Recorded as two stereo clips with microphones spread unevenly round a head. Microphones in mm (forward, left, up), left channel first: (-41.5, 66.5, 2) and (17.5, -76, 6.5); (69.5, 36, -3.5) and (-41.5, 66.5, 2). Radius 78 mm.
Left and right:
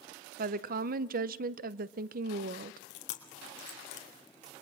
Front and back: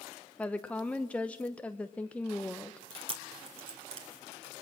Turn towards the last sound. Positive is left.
turn(degrees=130)